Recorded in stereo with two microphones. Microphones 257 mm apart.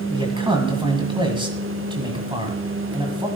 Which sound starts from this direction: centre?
A man speaking, at 0.1 s.